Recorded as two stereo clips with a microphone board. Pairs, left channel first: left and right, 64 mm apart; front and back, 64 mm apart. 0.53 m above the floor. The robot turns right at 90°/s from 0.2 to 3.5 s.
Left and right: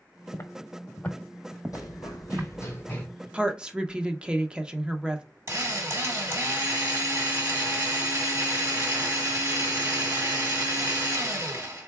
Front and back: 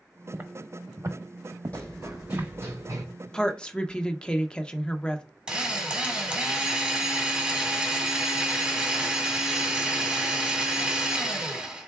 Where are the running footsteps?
70° left, 1.4 m; by 3.0 s 160° left, 1.9 m.